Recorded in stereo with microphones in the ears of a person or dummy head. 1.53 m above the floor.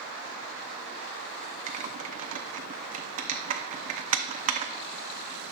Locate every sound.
1.7 s typing on a keyboard: 40° right (ahead or behind), 0.7 m